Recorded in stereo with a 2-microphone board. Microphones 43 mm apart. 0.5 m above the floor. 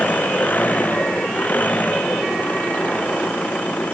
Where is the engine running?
40° left (ahead or behind).